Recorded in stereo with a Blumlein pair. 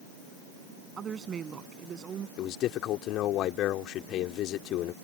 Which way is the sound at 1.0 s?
20° right.